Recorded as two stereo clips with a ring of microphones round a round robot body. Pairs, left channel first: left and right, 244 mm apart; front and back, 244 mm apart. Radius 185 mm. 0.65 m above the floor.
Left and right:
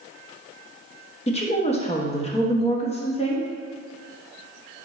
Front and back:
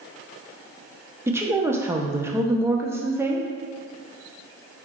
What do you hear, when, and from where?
1.3 s a woman speaking: 110° left, 1.0 m